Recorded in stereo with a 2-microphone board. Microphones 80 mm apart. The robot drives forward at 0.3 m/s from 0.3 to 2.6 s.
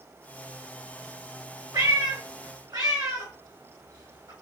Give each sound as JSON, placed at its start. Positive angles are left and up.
{"t": 1.7, "sound": "a cat meowing", "side_deg": -60, "distance_m": 1.4}